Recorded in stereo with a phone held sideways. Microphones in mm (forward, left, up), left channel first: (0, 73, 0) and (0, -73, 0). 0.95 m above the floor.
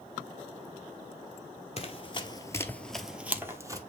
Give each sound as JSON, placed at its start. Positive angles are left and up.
{"t": 1.8, "sound": "running footsteps", "side_deg": 45, "distance_m": 1.2}